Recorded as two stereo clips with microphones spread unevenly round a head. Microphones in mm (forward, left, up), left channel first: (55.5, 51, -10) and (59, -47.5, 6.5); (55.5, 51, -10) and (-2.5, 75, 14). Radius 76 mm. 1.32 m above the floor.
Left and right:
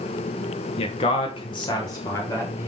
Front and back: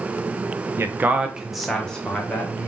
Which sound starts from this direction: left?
A man speaking, at 0.8 s.